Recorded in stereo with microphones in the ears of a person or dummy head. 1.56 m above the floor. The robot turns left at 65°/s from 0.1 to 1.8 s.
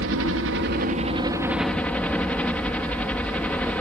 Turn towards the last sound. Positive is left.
turn(degrees=170)